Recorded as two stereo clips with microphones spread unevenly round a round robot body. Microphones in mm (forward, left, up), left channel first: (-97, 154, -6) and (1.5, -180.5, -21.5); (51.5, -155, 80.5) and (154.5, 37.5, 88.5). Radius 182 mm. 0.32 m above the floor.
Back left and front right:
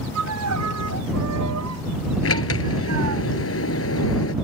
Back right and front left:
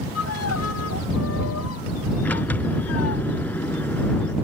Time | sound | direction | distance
0.1 | a violin | 120° right | ?
2.2 | a sliding door | 160° left | ?